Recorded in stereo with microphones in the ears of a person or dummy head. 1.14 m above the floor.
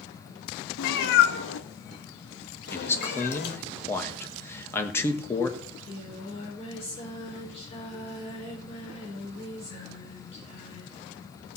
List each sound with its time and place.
0.8 s a cat meowing: 75° left (ahead or behind), 1.4 m; by 3.6 s 60° left (ahead or behind), 2.5 m
2.7 s a man speaking: 15° left (ahead or behind), 1.6 m
5.6 s singing: 25° left (ahead or behind), 5 m